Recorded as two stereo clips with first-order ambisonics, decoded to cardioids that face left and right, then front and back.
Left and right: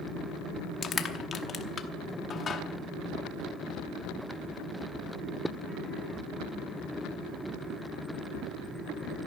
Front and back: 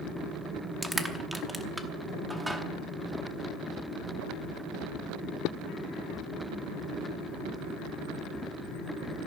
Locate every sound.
0.8 s crushing: 100° left, 0.9 m